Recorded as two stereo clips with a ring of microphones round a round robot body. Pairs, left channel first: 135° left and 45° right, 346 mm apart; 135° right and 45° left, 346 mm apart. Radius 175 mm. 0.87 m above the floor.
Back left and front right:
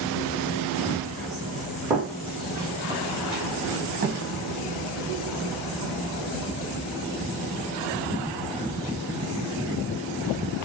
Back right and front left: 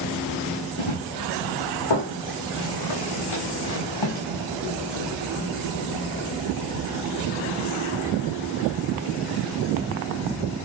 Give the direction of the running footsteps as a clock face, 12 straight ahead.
5 o'clock.